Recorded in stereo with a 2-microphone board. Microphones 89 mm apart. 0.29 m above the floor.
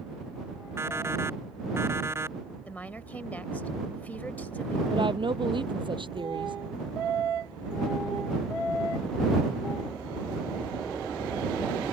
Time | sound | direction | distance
0.8 | an alarm clock | 30° right (ahead or behind) | ?
2.6 | a woman speaking | 20° left (ahead or behind) | ?
4.9 | a woman speaking | 65° right (ahead or behind) | ?